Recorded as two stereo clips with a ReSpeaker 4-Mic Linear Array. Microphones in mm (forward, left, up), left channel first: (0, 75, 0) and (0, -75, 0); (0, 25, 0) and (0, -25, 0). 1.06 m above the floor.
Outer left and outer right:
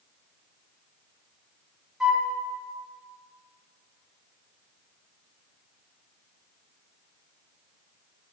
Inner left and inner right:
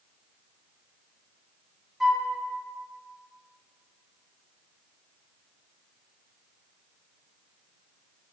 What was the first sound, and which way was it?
A flute, 5° right (ahead or behind).